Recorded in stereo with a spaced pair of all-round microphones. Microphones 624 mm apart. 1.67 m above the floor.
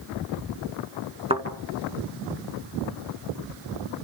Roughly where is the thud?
Centre.